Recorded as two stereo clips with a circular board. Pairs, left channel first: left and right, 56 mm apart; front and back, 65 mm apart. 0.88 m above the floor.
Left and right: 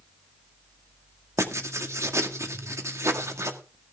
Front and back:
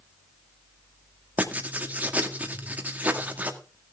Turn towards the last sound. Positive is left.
turn(degrees=-115)